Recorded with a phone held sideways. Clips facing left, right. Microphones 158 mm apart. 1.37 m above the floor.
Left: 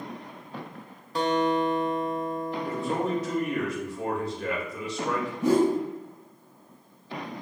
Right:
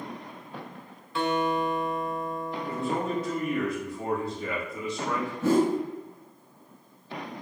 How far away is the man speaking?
About 2 m.